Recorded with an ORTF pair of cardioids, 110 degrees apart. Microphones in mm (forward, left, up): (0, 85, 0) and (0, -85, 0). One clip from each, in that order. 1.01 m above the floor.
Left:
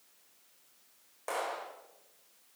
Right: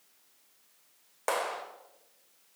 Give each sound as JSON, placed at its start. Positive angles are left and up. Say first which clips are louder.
{"t": 1.3, "sound": "a clap", "louder": "right 4 dB", "azimuth_deg": -55, "distance_m": 3.0}